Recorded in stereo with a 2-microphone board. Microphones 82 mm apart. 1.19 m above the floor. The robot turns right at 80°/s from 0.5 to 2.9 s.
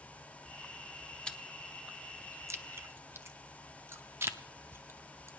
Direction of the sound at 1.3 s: 10° left (ahead or behind).